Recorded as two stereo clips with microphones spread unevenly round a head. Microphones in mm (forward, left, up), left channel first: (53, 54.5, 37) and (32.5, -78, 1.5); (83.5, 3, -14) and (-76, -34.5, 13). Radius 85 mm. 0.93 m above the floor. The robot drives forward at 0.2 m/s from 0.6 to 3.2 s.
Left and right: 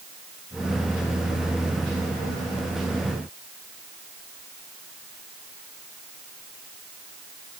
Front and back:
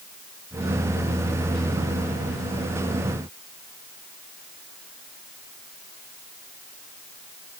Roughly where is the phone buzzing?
No phone buzzing in this recording.